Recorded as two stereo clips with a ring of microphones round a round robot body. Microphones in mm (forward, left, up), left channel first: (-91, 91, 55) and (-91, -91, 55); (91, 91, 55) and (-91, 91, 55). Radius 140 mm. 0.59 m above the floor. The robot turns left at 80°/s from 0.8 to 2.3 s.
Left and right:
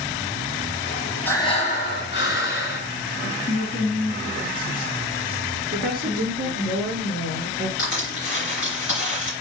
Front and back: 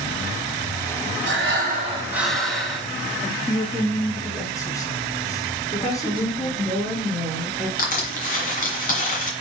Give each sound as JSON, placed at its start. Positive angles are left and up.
{"t": 1.2, "sound": "breathing", "azimuth_deg": 170, "distance_m": 1.6}
{"t": 3.2, "sound": "a woman speaking", "azimuth_deg": 70, "distance_m": 1.1}
{"t": 5.7, "sound": "a woman speaking", "azimuth_deg": -65, "distance_m": 2.0}
{"t": 7.8, "sound": "crushing", "azimuth_deg": 40, "distance_m": 2.0}